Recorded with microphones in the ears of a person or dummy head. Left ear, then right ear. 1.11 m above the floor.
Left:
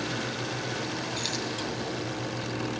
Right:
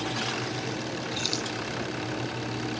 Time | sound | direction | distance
1.2 | keys jangling | 15° left (ahead or behind) | 9 m